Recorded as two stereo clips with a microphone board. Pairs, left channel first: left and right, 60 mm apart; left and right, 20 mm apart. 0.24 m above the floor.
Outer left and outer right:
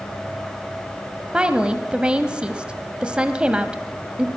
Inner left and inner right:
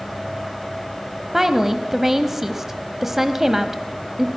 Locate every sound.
1.3 s a woman speaking: 20° right (ahead or behind), 1.0 m